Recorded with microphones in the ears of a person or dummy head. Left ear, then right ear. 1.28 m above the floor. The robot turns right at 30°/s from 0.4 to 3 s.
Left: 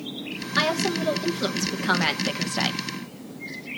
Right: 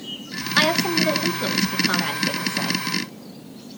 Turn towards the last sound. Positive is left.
turn(degrees=50)